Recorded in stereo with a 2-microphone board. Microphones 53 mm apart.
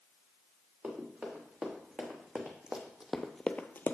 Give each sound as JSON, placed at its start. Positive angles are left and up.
{"t": 0.8, "sound": "running footsteps", "side_deg": -25, "distance_m": 3.0}